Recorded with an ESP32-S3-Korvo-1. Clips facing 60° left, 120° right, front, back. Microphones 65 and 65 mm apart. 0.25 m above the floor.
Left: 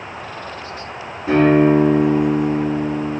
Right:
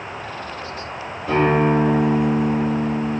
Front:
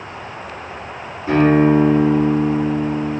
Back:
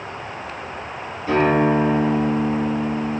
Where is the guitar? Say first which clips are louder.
Left 5 dB, front 4 dB; 75° left, 1.8 m.